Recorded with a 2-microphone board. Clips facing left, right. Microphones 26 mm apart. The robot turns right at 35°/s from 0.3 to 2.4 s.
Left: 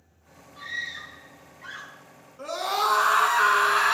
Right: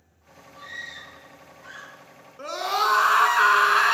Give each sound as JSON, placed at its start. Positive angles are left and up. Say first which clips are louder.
{"t": 0.6, "sound": "a scream", "louder": "left 4 dB", "azimuth_deg": 55, "distance_m": 2.0}
{"t": 2.4, "sound": "a scream", "louder": "right 1 dB", "side_deg": -35, "distance_m": 1.2}